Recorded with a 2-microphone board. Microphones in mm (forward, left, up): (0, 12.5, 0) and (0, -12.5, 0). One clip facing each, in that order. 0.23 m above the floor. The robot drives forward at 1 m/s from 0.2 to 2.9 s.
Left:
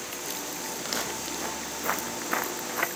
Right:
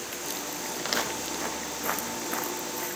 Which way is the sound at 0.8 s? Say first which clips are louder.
Right 4 dB; 15° right (ahead or behind).